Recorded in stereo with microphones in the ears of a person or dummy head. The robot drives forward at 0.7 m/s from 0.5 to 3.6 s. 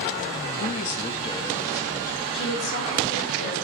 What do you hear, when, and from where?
0.6 s a man speaking: 40° left (ahead or behind), 0.6 m; by 2.2 s 15° left (ahead or behind), 1.6 m
2.3 s a woman speaking: 65° left (ahead or behind), 3 m; by 3.5 s 50° left (ahead or behind), 3.5 m